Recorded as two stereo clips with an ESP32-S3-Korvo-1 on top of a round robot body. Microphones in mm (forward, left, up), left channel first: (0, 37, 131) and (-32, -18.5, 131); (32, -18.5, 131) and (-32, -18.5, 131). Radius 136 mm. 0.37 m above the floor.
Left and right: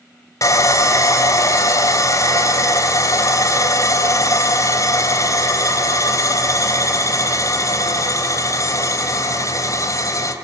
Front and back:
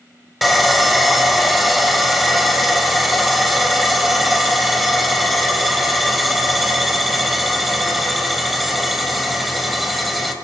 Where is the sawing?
90° left, 3.5 m.